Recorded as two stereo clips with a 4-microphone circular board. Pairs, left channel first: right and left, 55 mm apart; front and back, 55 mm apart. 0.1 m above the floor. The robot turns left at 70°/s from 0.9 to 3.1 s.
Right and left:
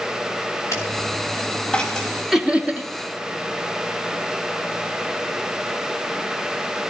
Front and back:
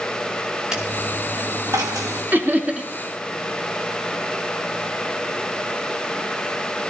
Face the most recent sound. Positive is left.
turn(degrees=110)